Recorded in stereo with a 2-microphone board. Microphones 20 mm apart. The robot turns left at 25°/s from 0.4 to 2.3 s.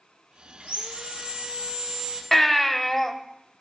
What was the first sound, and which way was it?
Sawing, 100° right.